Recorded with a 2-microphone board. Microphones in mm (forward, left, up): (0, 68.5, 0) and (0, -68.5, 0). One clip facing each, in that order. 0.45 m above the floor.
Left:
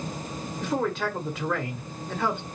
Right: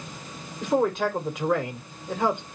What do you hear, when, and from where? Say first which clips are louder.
0.6 s a man speaking: right 4 dB; 15° right (ahead or behind), 1.2 m